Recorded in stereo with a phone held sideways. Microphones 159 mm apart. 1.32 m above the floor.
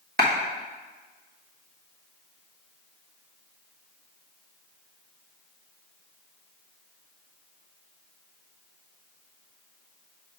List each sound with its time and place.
0.2 s a clap: 70° right (ahead or behind), 1.3 m